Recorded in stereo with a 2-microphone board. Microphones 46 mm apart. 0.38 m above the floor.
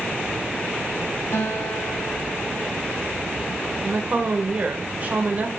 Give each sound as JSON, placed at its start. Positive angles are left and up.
{"t": 1.3, "sound": "a guitar", "side_deg": 65, "distance_m": 2.5}
{"t": 3.8, "sound": "a woman speaking", "side_deg": -30, "distance_m": 1.2}